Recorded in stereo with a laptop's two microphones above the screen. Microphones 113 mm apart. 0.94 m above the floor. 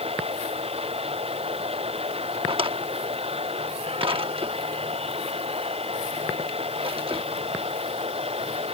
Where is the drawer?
55° right (ahead or behind).